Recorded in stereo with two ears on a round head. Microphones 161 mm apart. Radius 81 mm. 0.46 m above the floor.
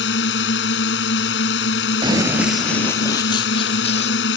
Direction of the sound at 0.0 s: 75° left (ahead or behind).